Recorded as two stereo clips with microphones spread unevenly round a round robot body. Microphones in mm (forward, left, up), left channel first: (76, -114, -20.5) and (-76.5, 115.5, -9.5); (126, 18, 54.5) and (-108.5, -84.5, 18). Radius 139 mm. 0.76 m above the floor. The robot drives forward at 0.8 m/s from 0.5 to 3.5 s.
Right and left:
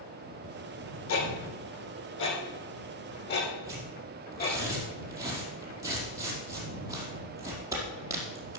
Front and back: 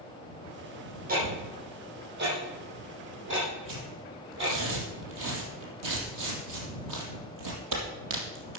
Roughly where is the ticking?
Right.